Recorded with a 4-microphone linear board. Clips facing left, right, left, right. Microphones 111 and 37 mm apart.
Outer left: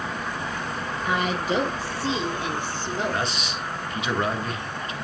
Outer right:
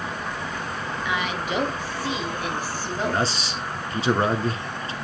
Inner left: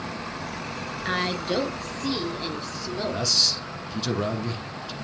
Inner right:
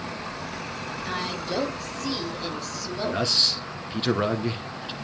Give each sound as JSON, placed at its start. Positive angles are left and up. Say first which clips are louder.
{"t": 1.1, "sound": "a woman speaking", "louder": "outer left 3 dB, inner left 5 dB", "side_deg": 40, "distance_m": 3.0}
{"t": 3.0, "sound": "a man speaking", "louder": "outer right 5 dB, inner right 2 dB", "side_deg": -30, "distance_m": 1.5}